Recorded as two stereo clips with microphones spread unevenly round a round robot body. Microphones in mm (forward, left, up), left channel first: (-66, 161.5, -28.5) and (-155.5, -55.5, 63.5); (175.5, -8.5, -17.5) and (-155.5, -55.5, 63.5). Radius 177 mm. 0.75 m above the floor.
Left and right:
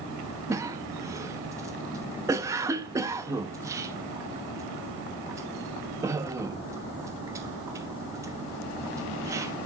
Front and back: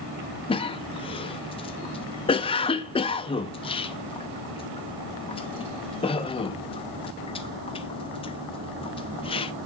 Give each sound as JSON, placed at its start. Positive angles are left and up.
{"t": 0.5, "sound": "a cough", "azimuth_deg": -5, "distance_m": 0.7}